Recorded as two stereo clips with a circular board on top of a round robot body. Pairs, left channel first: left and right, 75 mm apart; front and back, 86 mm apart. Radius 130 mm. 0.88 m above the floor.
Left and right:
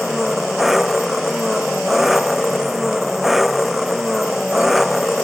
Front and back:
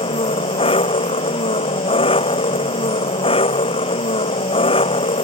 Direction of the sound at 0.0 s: 5° right.